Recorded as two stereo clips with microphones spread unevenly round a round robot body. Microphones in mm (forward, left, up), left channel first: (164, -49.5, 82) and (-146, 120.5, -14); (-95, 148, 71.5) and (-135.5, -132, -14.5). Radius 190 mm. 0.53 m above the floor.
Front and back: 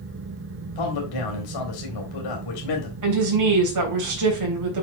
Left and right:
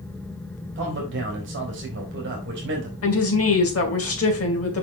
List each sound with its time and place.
0.8 s a man speaking: 60° right, 2.5 m
3.0 s a woman speaking: 125° left, 3 m